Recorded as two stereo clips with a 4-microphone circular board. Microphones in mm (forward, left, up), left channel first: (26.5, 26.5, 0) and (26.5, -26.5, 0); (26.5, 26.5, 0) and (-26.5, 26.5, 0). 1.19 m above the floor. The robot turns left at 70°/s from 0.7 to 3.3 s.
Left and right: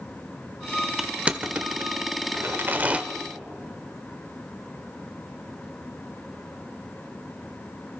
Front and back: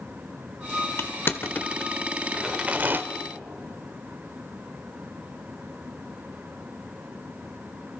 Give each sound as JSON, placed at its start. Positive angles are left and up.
{"t": 1.0, "sound": "crushing", "azimuth_deg": -10, "distance_m": 1.2}